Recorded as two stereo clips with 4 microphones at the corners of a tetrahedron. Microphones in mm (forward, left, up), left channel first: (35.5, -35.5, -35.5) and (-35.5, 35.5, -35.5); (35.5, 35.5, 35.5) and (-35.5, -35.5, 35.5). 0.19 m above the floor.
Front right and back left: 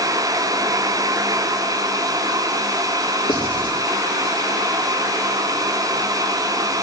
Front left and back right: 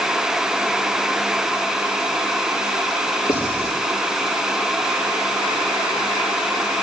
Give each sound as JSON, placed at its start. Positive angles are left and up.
{"t": 3.3, "sound": "writing", "azimuth_deg": -10, "distance_m": 5.0}